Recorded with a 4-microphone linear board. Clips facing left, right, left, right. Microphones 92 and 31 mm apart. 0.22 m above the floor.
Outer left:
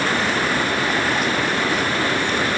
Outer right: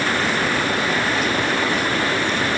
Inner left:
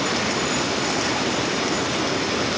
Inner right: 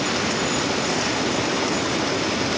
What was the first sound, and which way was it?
Only background noise.